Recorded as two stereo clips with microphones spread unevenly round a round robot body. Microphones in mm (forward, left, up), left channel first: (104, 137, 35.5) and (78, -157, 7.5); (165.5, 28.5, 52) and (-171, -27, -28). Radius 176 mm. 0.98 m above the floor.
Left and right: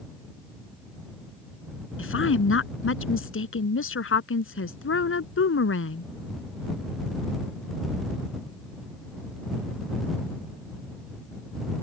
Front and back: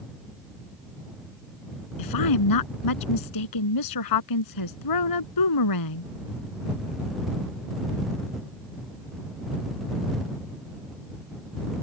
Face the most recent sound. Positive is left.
turn(degrees=40)